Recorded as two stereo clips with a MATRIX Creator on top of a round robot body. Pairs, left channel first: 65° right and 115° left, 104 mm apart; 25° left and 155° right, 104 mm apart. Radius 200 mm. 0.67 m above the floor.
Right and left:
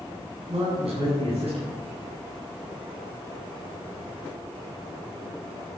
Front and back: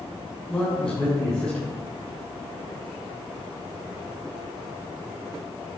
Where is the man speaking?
100° left, 7.5 m.